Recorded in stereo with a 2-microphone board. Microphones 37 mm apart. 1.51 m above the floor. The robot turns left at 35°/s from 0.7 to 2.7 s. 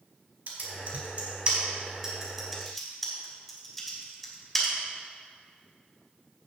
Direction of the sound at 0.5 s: 60° right (ahead or behind).